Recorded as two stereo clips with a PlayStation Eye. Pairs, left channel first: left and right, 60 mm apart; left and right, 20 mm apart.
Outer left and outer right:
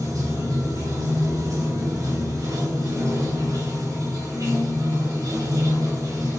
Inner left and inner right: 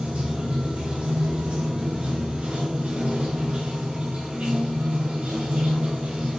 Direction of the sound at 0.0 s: 75° right (ahead or behind).